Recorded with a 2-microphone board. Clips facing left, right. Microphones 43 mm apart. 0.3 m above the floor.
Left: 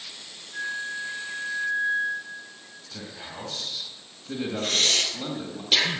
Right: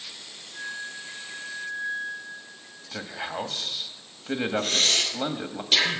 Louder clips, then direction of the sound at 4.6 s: Even; 5° left (ahead or behind).